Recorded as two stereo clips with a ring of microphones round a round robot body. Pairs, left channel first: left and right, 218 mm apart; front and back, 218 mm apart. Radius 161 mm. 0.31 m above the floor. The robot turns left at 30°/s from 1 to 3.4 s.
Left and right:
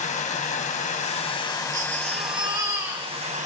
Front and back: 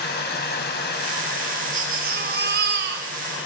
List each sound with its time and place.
0.0 s running water: 35° left, 1.9 m; by 3.5 s 35° right, 1.9 m
1.7 s a baby crying: 135° right, 1.2 m; by 3.1 s 175° right, 1.2 m